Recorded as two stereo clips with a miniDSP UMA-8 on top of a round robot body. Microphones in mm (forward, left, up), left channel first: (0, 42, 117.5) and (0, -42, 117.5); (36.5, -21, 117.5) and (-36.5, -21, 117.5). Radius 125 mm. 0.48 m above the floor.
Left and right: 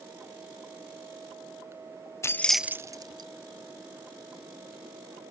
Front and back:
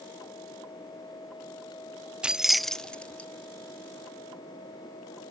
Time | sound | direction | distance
2.2 | keys jangling | 110° left | 0.6 m